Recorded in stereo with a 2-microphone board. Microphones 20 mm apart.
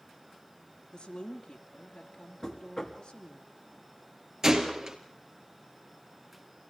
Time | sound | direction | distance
0.9 | a woman speaking | 55° left (ahead or behind) | 3 m
2.4 | knocking | 25° left (ahead or behind) | 2.5 m
4.4 | a gunshot | 30° right (ahead or behind) | 3.5 m